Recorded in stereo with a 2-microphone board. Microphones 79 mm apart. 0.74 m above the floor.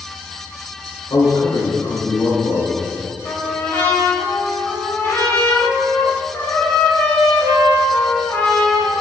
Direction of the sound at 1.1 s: 70° left (ahead or behind).